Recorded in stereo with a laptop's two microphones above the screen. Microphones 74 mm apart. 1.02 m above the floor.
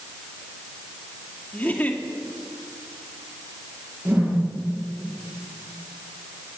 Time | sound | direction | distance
1.5 | a giggle | 20° left (ahead or behind) | 2.5 m
4.0 | a whoosh | 30° right (ahead or behind) | 9.5 m